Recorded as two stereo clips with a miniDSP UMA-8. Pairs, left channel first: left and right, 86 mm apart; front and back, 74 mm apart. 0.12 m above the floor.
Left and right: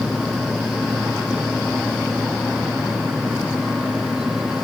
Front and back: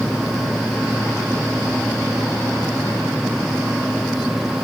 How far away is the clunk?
I don't hear a clunk.